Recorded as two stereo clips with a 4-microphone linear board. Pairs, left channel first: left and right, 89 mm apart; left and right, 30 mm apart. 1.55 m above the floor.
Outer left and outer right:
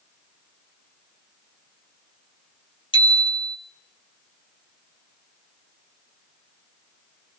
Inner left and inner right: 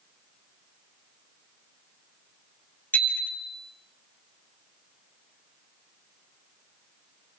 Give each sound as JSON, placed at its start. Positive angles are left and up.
{"t": 2.9, "sound": "a bicycle bell", "side_deg": 70, "distance_m": 2.5}